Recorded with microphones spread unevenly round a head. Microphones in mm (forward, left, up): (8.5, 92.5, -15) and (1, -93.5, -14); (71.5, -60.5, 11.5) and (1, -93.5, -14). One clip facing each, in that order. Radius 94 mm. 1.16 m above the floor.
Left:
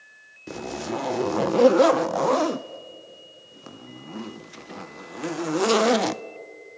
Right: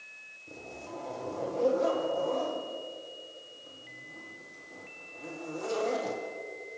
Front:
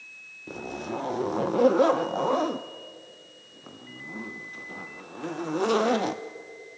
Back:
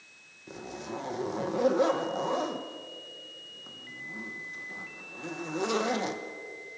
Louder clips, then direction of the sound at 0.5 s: Left 13 dB, front 5 dB; 100° left.